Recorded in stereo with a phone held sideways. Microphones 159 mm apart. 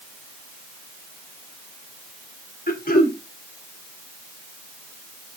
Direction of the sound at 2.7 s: 60° left (ahead or behind).